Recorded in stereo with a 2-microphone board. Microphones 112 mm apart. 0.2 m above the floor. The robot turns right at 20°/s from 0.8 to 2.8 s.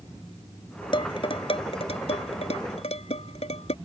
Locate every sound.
0.9 s dishes clattering: 50° left (ahead or behind); by 3.8 s 70° left (ahead or behind)